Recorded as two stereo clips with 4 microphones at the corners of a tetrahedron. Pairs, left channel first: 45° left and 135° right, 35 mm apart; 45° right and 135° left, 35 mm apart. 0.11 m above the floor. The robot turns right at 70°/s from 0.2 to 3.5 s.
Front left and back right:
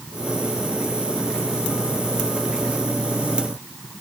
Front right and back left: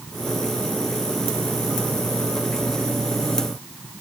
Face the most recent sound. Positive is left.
No sound to turn to.